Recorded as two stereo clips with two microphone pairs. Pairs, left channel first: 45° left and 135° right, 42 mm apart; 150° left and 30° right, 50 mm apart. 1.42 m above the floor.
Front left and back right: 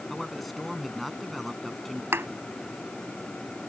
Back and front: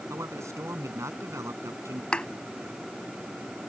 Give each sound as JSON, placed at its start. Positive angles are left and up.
{"t": 0.1, "sound": "a man speaking", "azimuth_deg": -45}
{"t": 2.1, "sound": "a thud", "azimuth_deg": -145}